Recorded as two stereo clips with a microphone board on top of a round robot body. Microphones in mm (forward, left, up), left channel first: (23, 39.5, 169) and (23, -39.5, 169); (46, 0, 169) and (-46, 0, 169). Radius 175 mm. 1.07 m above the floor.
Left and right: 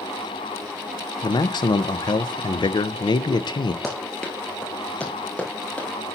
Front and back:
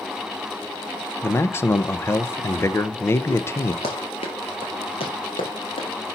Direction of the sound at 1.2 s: 65° left.